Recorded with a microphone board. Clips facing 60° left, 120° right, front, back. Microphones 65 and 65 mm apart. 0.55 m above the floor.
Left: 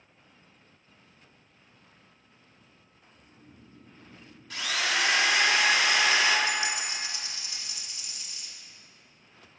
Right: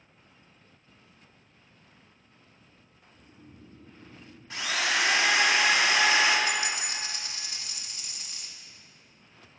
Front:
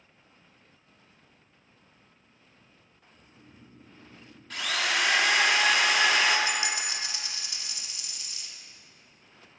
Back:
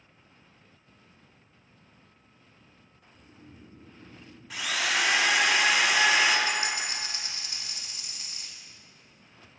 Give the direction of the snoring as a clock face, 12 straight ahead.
5 o'clock.